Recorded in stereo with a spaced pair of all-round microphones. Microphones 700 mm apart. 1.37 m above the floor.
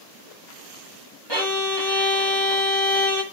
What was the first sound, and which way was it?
A violin, 35° right (ahead or behind).